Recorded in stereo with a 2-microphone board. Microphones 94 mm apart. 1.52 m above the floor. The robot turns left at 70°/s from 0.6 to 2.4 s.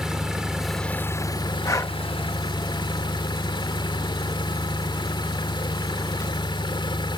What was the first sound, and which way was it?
An engine running, 175° right.